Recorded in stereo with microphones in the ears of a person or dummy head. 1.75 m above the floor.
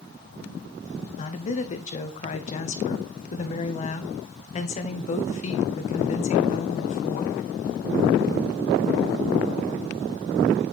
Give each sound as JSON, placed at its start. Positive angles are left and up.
{"t": 1.2, "sound": "a woman speaking", "side_deg": 40, "distance_m": 0.9}